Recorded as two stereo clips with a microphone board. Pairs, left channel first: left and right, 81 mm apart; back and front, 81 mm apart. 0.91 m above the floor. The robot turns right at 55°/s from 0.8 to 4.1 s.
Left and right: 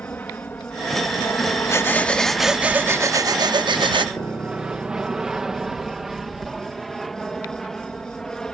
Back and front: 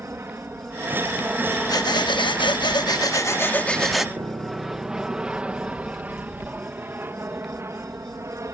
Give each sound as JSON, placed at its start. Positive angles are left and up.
{"t": 0.0, "sound": "an aircraft", "azimuth_deg": 35}
{"t": 1.7, "sound": "breathing", "azimuth_deg": 145}
{"t": 4.2, "sound": "a piano", "azimuth_deg": 35}